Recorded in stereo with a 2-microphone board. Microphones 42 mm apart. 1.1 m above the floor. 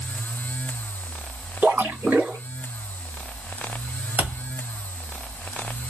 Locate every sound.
1.6 s a splash: 55° right (ahead or behind), 1.7 m
4.2 s a thud: 55° right (ahead or behind), 1.8 m